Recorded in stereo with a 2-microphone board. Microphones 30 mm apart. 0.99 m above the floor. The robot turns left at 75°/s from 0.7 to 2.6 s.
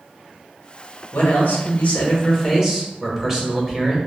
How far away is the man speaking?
About 1.0 m.